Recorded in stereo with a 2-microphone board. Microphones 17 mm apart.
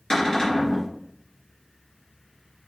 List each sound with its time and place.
0.1 s a cupboard door: 35° left (ahead or behind), 4 m